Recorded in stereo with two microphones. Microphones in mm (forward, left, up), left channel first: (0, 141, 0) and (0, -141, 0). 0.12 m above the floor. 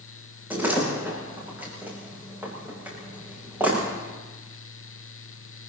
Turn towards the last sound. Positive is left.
turn(degrees=-5)  # may be behind; listen again after turning